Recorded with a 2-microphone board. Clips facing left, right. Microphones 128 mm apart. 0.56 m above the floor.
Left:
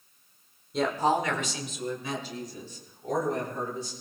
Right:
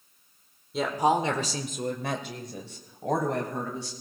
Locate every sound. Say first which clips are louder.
0.7 s a woman speaking: right 1 dB; centre (ahead or behind), 1.7 m; by 3.9 s 80° right, 4.5 m